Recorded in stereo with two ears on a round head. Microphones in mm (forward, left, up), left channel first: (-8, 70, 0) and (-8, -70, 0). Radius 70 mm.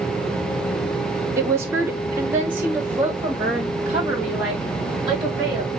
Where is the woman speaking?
20° right (ahead or behind), 0.7 m; by 5.8 s 5° right (ahead or behind), 3.5 m.